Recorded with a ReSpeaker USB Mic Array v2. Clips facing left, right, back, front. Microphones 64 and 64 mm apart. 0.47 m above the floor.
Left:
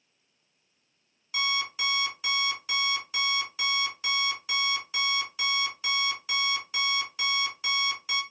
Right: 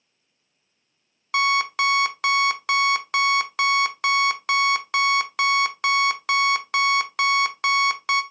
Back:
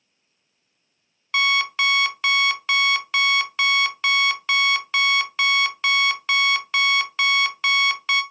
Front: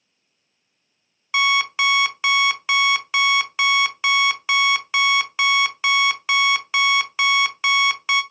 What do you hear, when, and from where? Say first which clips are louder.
1.3 s an alarm clock: right 10 dB, front 2 dB; 80° right, 0.5 m